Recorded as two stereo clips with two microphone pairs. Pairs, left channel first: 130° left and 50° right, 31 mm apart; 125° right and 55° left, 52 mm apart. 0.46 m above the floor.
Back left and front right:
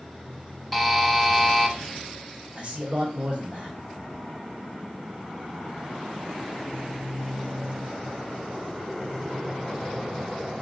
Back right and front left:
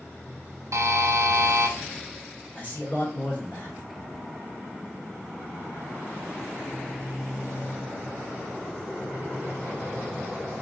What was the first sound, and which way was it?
A buzzer, 40° left.